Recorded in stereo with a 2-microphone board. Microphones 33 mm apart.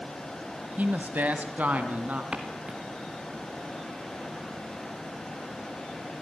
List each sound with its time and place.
0.8 s a woman speaking: 55° right (ahead or behind), 1.9 m; by 2.2 s 50° right (ahead or behind), 3.5 m
2.3 s footsteps: 35° right (ahead or behind), 3 m